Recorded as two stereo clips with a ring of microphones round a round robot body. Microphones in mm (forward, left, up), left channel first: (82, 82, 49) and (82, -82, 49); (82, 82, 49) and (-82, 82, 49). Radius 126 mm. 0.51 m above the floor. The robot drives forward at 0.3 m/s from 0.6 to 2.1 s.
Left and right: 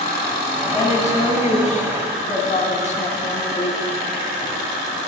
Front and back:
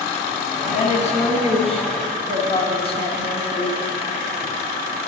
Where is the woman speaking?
45° left, 4 m; by 3.8 s 50° left, 4 m.